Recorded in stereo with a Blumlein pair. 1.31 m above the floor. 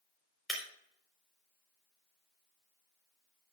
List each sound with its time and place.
0.5 s breaking glass: 10° left, 4 m